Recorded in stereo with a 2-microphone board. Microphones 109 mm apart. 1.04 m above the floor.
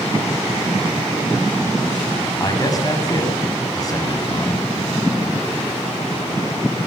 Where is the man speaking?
30° left (ahead or behind), 8 m.